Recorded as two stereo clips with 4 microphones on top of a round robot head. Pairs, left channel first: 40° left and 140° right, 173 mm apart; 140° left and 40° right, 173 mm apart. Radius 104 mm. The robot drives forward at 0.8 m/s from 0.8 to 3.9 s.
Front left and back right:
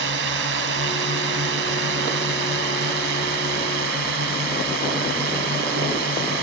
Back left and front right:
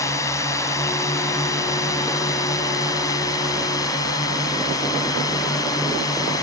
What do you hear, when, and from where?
0.0 s a drone: 145° right; by 6.4 s 150° right